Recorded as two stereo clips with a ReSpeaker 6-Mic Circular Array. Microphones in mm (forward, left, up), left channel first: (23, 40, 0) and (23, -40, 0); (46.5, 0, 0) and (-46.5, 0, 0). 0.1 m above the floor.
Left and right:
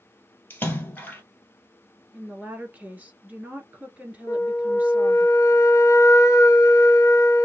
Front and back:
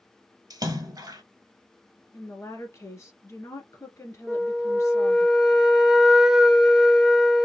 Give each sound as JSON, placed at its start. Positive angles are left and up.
{"t": 0.5, "sound": "a splash", "azimuth_deg": 150, "distance_m": 1.3}
{"t": 2.1, "sound": "a woman speaking", "azimuth_deg": -30, "distance_m": 1.6}
{"t": 4.3, "sound": "a flute", "azimuth_deg": 95, "distance_m": 0.8}